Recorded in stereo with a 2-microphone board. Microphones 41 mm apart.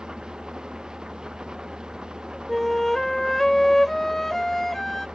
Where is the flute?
10° left (ahead or behind).